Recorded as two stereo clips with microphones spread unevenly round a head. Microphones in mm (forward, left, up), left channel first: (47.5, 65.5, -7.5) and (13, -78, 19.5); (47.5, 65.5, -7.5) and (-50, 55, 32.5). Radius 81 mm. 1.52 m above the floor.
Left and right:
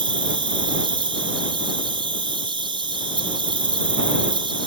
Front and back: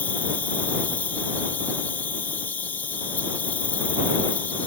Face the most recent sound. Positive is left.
turn(degrees=-45)